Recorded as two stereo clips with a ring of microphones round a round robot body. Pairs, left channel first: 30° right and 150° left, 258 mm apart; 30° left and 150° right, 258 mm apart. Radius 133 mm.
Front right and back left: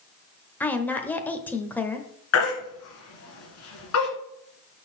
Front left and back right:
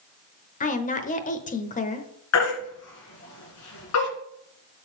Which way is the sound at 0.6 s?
45° left.